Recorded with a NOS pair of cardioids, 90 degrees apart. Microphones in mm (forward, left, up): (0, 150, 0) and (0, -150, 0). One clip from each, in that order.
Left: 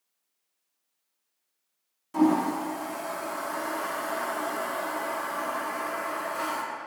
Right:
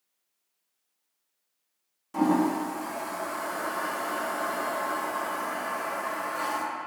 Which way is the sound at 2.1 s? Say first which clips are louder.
Left 1 dB; 5° left.